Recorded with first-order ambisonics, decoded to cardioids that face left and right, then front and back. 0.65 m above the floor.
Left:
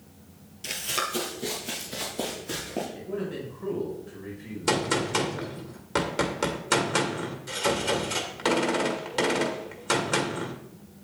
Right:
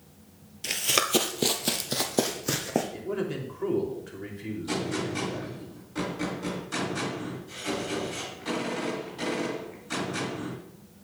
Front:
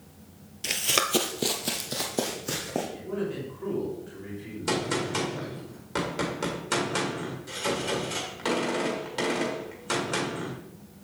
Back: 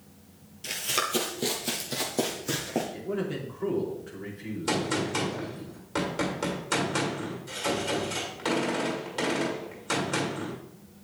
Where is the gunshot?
85° left, 1.8 m.